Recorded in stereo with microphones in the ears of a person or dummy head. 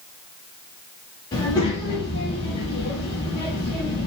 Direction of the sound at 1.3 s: 20° left (ahead or behind).